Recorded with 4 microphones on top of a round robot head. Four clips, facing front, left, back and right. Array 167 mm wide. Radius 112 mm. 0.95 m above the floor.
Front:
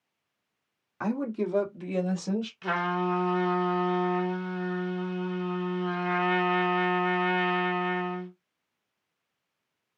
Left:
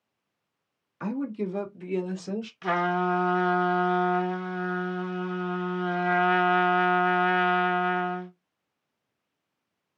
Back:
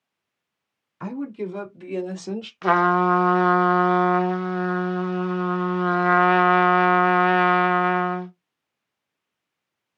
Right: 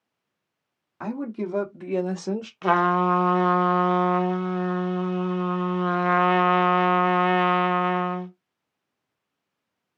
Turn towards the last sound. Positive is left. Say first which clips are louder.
# right 6 dB, back 13 dB
turn(degrees=-135)